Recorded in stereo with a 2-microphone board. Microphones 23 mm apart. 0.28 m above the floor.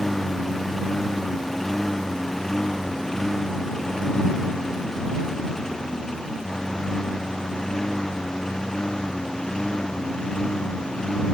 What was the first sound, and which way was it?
A lawn mower, 10° left (ahead or behind).